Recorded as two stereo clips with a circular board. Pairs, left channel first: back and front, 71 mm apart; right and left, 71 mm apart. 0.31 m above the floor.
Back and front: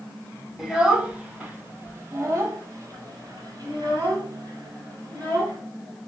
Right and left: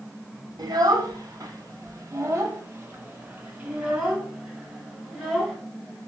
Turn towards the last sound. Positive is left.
turn(degrees=-10)